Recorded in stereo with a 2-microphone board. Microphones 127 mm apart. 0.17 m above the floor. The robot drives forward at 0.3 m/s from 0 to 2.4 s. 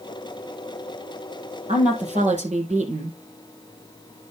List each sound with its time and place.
1.7 s a woman speaking: 70° right (ahead or behind), 4 m